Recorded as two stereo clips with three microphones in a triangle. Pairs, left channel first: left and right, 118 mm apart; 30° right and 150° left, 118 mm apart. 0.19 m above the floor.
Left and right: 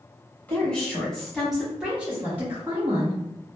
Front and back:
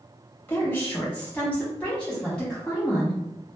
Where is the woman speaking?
25° left, 1.4 m; by 3.2 s 115° right, 1.4 m.